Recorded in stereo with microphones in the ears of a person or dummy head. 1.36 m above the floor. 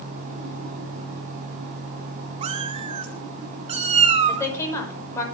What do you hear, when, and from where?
2.4 s a cat meowing: 30° right (ahead or behind), 1.1 m
4.3 s a woman speaking: 15° left (ahead or behind), 5.5 m